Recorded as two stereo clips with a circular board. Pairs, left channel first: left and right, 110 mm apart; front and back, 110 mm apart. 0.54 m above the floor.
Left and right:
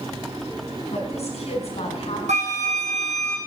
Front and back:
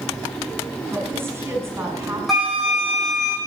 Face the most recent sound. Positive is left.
turn(degrees=-90)